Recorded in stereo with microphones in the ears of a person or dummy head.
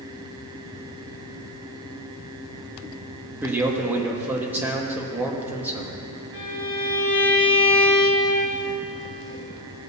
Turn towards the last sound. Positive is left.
turn(degrees=-25)  # may be behind; listen again after turning